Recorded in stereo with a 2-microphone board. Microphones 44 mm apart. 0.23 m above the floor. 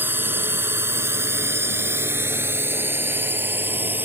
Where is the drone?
50° right (ahead or behind).